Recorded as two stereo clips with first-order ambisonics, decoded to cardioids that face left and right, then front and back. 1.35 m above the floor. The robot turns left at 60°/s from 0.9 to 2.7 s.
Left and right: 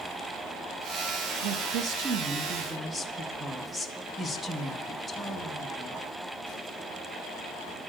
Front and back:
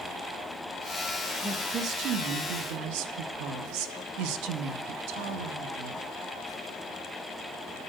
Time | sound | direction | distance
1.4 | a woman speaking | 100° right | 1.2 m